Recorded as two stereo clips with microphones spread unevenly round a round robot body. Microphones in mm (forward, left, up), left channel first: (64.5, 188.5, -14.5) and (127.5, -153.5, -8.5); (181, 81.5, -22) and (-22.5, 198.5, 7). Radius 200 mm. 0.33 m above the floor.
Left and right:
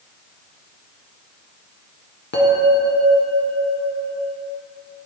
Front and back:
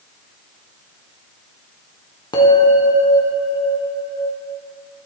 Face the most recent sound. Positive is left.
turn(degrees=40)